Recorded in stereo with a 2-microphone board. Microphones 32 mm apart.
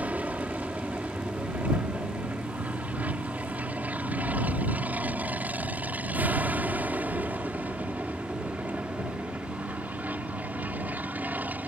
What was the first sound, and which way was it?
An aircraft, 45° right (ahead or behind).